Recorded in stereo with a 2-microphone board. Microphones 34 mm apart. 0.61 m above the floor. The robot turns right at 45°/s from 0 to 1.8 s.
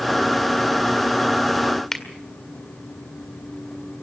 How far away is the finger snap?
About 1.8 m.